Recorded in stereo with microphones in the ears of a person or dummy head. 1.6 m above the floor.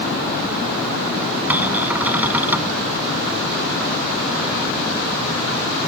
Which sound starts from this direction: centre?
A cupboard door, at 1.5 s.